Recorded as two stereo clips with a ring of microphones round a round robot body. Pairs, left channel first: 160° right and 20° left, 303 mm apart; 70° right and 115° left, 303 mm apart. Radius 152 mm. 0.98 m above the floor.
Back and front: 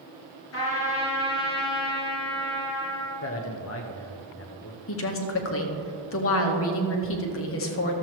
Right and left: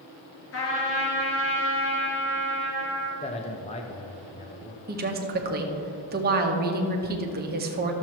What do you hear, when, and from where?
0.5 s a trumpet: 115° right, 3 m
3.2 s a man speaking: 130° right, 0.7 m
4.9 s a woman speaking: 165° left, 1.1 m